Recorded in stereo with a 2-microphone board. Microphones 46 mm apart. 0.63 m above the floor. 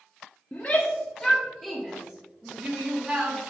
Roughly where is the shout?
Left.